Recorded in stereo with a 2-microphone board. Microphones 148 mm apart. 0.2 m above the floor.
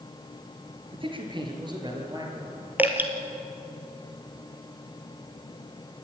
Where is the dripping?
10° right (ahead or behind), 2 m.